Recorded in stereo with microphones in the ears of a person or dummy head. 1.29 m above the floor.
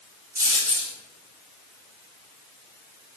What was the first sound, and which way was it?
A dropped coin, 15° right (ahead or behind).